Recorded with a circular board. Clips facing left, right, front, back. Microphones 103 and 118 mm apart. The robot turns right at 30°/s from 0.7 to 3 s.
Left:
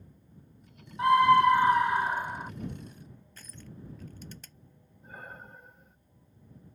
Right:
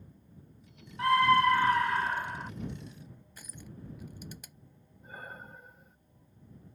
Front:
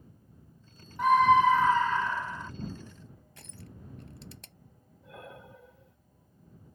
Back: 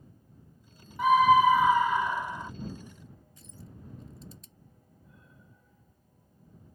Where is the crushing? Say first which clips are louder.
Even, front 1 dB; 10° right.